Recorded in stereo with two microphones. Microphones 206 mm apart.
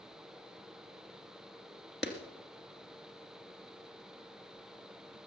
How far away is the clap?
About 2 m.